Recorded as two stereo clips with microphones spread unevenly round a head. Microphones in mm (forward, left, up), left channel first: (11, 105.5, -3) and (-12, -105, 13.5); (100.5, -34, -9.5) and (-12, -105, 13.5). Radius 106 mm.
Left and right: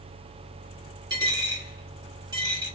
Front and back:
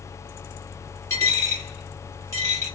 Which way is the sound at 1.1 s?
40° right.